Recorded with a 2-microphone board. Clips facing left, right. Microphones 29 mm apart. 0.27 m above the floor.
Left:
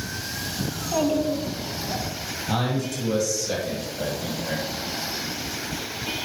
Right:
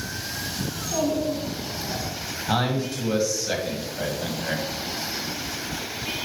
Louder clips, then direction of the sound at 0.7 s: Left 2 dB; 30° left (ahead or behind).